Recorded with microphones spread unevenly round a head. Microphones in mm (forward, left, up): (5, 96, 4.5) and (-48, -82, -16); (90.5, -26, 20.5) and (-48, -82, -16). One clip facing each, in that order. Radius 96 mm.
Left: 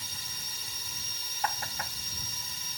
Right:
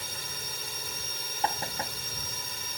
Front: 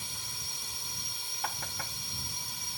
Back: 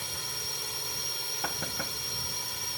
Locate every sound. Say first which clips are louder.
0.0 s a drone: right 7 dB, back 6 dB; 140° right
1.4 s knocking: right 3 dB, back 2 dB; 170° right